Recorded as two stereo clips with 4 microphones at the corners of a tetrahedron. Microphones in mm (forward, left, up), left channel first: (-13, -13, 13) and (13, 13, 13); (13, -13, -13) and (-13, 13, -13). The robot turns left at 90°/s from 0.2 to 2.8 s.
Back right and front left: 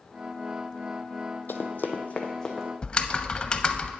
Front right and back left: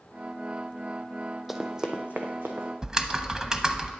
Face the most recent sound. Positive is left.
turn(degrees=-170)